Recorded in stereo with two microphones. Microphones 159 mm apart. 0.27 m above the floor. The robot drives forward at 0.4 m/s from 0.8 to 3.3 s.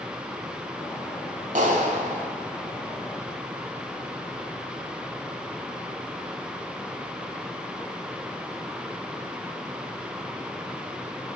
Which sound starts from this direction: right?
A clap, at 1.6 s.